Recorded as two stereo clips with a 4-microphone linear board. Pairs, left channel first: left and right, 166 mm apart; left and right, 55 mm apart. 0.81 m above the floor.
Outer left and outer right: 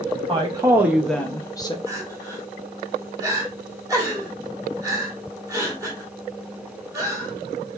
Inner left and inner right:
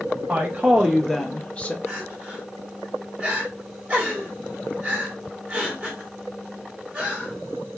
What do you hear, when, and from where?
0.3 s a woman speaking: 30° right (ahead or behind), 0.7 m; by 1.8 s 30° left (ahead or behind), 0.8 m
1.9 s crying: 20° right (ahead or behind), 1.7 m